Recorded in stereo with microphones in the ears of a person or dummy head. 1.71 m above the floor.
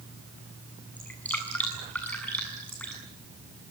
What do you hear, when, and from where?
1.0 s dripping: 5° left (ahead or behind), 7.5 m